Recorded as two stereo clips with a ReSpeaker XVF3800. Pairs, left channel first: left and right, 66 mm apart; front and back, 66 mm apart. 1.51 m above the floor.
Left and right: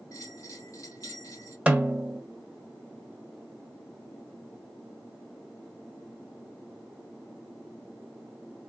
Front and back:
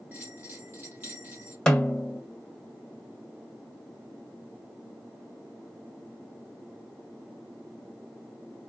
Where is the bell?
125° left, 3 m.